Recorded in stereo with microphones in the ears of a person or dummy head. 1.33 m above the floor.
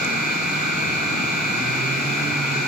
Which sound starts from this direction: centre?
A machine running, at 0.0 s.